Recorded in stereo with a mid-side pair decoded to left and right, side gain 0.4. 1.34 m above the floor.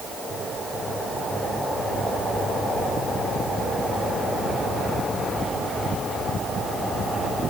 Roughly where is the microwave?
No microwave in this recording.